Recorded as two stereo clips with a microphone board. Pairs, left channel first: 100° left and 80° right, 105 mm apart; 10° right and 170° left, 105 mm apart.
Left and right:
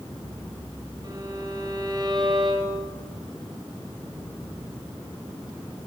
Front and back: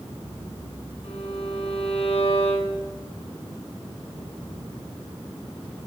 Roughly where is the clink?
I don't hear a clink.